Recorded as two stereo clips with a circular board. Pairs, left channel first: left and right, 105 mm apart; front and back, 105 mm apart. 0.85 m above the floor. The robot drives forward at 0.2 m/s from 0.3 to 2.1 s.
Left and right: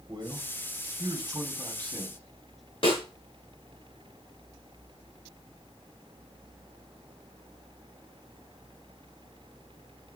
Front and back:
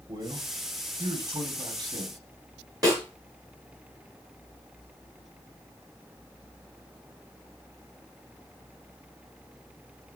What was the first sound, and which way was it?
A man speaking, 140° right.